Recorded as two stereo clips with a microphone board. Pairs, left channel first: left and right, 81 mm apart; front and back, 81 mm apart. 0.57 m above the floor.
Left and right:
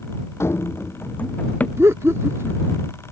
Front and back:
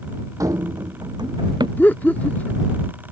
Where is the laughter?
60° right.